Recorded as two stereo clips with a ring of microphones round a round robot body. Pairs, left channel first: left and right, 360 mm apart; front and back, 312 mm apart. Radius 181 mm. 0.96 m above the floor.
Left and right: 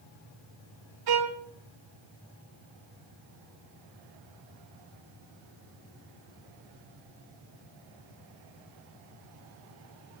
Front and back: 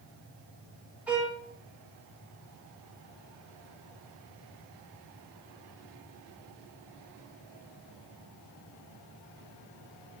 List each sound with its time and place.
1.1 s a violin: 95° right, 1.0 m